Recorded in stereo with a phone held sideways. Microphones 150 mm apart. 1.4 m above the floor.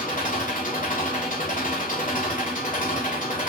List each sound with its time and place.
0.0 s an engine running: 60° left (ahead or behind), 3.5 m